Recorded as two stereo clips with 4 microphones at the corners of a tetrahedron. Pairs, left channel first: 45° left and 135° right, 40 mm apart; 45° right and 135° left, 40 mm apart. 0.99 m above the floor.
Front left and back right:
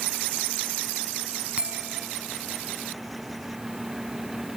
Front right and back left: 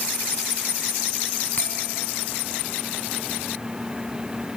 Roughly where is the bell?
Right.